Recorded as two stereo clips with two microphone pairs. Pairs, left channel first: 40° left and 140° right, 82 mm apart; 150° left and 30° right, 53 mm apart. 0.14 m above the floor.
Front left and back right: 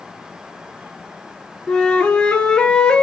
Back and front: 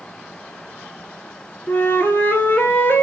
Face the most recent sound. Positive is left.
turn(degrees=115)